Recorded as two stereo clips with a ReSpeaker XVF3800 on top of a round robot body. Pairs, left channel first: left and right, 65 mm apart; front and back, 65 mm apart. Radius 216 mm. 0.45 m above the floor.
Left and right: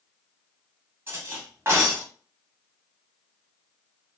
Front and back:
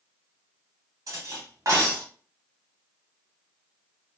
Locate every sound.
1.1 s cutlery clinking: 145° right, 1.3 m